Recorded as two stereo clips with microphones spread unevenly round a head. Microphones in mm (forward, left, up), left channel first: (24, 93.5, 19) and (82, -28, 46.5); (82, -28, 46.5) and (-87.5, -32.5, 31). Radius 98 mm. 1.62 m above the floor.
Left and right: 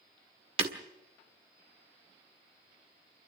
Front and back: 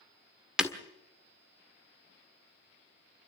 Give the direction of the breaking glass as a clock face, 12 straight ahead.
3 o'clock.